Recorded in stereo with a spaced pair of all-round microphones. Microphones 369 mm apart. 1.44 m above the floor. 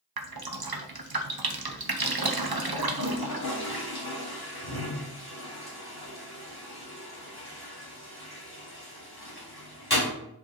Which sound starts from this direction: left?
A toilet flushing, at 2.8 s.